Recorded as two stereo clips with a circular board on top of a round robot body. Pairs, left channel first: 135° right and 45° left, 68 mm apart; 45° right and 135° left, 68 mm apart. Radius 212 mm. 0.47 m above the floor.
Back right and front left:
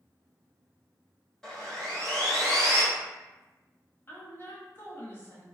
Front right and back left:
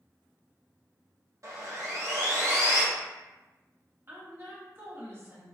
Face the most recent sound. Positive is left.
turn(degrees=175)